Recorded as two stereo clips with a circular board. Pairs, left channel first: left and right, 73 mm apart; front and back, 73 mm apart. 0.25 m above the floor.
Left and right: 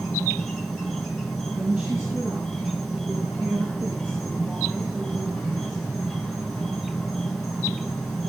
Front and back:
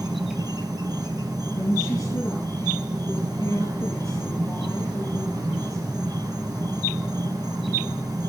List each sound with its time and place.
0.0 s an insect: 175° left, 3 m
1.5 s a woman speaking: 35° right, 4.5 m